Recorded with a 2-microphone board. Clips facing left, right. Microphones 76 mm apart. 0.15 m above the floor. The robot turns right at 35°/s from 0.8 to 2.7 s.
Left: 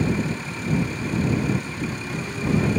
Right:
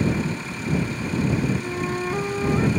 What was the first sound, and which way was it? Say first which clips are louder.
A flute: right 4 dB; 70° right.